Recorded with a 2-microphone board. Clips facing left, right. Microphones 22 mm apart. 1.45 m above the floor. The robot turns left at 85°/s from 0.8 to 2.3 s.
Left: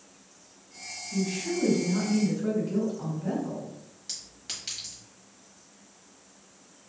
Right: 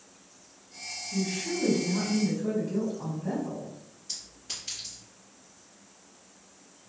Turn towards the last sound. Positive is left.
turn(degrees=60)  # may be behind; listen again after turning